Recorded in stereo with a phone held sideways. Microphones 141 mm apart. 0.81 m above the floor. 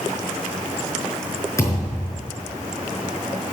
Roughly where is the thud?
Left.